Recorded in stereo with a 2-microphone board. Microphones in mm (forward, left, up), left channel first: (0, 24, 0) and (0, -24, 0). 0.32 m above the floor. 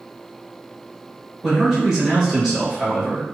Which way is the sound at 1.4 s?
10° right (ahead or behind).